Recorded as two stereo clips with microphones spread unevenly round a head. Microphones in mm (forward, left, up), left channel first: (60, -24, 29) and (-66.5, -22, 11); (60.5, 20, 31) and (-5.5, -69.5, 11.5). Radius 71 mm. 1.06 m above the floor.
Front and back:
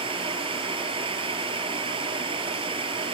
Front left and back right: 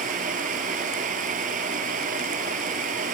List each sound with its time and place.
0.0 s a fan: 130° right